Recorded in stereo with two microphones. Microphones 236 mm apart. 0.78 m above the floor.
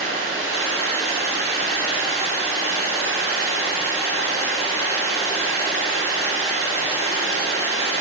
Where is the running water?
65° left (ahead or behind), 0.7 m.